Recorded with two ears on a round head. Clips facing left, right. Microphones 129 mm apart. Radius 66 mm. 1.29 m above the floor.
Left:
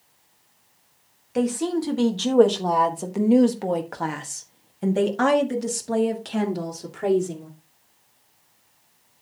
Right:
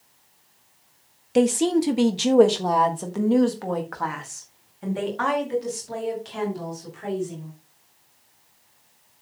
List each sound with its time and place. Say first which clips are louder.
1.4 s a woman speaking: right 4 dB; 30° right (ahead or behind), 1.6 m; by 7.5 s 65° left (ahead or behind), 3 m